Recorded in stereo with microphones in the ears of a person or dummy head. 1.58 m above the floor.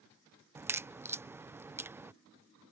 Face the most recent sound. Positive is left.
turn(degrees=-5)  # may be behind; listen again after turning